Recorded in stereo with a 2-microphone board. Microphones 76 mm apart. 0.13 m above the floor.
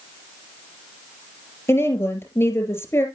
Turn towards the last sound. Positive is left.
turn(degrees=35)  # may be behind; listen again after turning